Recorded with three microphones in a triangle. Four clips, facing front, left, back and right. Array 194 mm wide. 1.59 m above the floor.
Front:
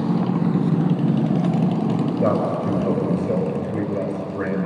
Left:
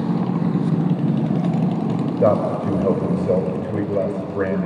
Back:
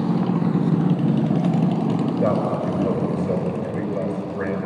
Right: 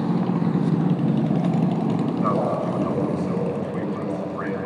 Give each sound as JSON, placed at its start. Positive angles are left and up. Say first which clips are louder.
{"t": 2.2, "sound": "a man speaking", "louder": "left 8 dB, front 2 dB", "azimuth_deg": 85, "distance_m": 5.5}